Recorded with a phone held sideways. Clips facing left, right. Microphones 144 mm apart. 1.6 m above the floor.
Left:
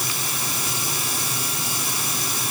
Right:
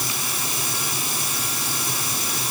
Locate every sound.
Only background noise.